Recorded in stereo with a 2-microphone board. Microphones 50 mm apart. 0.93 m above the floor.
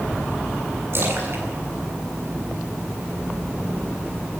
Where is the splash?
50° right (ahead or behind), 8.5 m.